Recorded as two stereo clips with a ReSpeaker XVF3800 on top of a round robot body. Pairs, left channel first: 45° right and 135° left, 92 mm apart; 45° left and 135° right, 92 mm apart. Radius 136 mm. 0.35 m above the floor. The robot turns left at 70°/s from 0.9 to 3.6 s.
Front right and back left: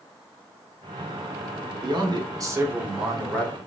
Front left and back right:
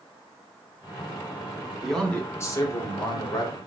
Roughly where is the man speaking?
Behind left.